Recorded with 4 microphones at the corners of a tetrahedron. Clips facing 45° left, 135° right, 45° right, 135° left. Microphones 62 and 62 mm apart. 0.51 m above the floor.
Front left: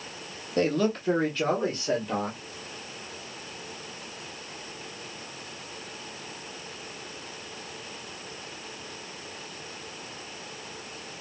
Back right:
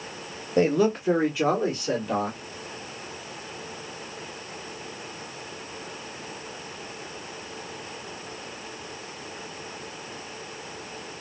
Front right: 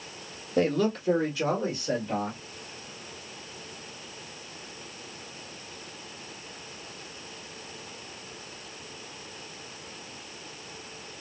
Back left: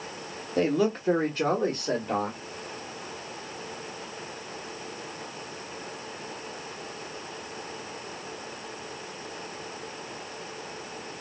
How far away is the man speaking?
About 0.8 m.